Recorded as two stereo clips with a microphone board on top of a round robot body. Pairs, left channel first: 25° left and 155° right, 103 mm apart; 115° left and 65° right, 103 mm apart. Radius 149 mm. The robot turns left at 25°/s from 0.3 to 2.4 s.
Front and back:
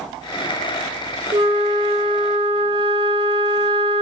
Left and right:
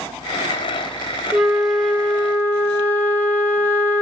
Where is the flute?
155° right, 1.3 m; by 4.0 s straight behind, 1.3 m.